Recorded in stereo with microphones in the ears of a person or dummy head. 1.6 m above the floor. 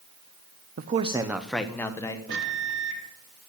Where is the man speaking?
50° right (ahead or behind), 0.5 m; by 2.2 s 20° left (ahead or behind), 1.2 m.